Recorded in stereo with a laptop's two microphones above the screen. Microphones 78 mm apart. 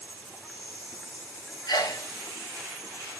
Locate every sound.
0.0 s an insect: centre (ahead or behind), 0.8 m
1.7 s a sneeze: 55° left (ahead or behind), 1.5 m